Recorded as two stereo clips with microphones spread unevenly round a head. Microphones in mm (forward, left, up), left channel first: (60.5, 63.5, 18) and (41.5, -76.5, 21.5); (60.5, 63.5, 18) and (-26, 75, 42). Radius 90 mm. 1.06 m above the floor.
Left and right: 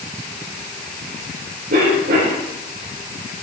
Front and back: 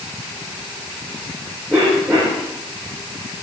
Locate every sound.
1.7 s a cough: 100° right, 5 m